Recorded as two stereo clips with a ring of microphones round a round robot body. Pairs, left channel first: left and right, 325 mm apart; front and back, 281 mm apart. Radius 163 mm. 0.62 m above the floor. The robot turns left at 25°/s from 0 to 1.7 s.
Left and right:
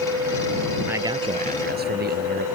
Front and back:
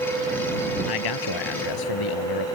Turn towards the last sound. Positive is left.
turn(degrees=-25)